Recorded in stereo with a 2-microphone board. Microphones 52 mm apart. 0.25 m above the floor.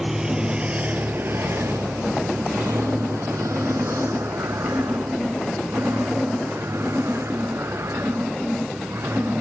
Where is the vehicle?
10° right (ahead or behind); by 9.4 s 60° right (ahead or behind).